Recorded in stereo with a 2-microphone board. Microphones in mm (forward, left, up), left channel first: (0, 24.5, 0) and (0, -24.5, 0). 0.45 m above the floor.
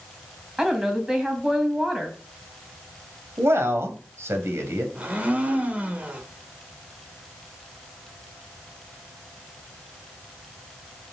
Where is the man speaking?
65° right (ahead or behind), 2.5 m.